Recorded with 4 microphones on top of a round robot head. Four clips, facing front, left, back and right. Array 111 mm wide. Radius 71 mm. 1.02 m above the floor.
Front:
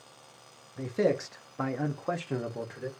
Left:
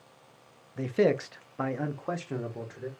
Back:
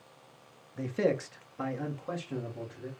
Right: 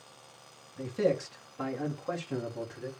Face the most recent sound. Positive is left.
turn(degrees=20)